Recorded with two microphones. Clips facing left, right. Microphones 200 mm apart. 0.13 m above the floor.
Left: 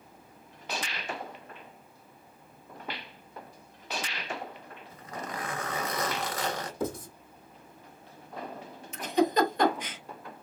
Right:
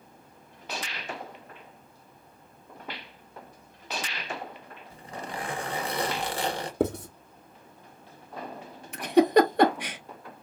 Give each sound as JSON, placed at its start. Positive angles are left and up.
{"t": 4.9, "sound": "a zipper", "side_deg": -30, "distance_m": 1.2}
{"t": 6.8, "sound": "writing", "side_deg": -70, "distance_m": 1.2}
{"t": 8.9, "sound": "a giggle", "side_deg": -65, "distance_m": 0.8}